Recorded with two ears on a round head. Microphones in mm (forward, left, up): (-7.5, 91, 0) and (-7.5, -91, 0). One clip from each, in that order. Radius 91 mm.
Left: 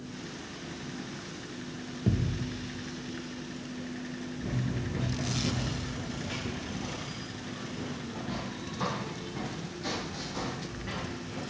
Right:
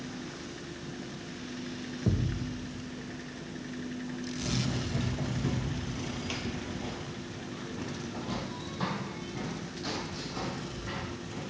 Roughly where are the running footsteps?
Right.